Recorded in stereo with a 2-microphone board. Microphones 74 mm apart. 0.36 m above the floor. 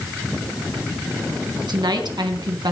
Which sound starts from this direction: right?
A woman speaking, at 1.7 s.